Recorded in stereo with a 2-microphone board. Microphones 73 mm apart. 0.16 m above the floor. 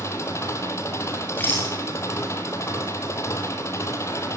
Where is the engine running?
40° left (ahead or behind), 2.5 m.